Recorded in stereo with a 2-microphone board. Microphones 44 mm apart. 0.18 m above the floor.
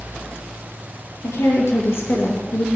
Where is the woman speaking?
70° left (ahead or behind), 3.5 m; by 2.6 s 45° left (ahead or behind), 2.5 m.